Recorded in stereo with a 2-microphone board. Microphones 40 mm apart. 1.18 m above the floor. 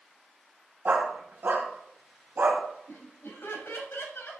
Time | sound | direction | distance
0.8 | a dog barking | 60° right (ahead or behind) | 3 m
2.9 | laughter | 80° left | 6 m